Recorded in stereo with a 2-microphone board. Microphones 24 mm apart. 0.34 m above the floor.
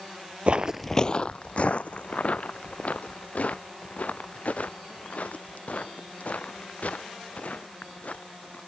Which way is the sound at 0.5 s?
55° right (ahead or behind).